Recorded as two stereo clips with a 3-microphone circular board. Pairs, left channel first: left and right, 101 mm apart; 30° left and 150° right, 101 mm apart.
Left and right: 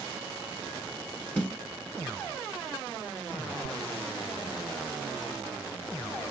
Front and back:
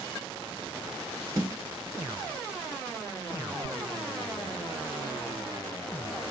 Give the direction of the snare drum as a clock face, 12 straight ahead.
6 o'clock.